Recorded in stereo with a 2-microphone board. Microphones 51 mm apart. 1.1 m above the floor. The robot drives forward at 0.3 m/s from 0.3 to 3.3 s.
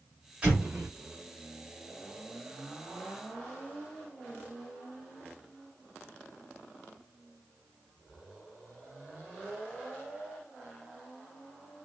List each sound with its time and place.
0.4 s an explosion: 25° right (ahead or behind), 1.5 m